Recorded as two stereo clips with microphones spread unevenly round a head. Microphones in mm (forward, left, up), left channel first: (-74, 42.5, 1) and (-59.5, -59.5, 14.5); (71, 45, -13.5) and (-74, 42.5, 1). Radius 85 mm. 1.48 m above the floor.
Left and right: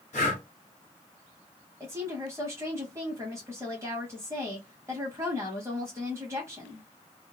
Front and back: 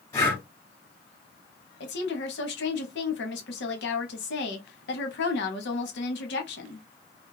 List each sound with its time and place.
0.1 s breathing: 70° left, 1.3 m
1.8 s a woman speaking: 5° right, 1.0 m